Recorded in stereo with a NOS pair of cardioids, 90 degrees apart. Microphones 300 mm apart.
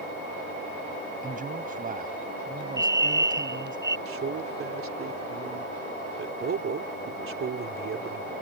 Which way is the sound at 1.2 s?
25° right.